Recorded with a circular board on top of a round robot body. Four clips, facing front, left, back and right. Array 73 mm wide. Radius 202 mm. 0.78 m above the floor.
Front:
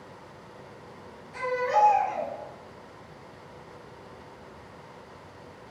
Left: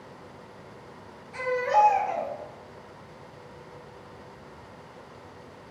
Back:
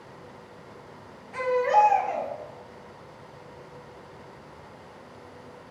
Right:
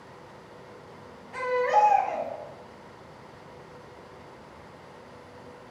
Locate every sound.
1.3 s a baby crying: 120° right, 1.8 m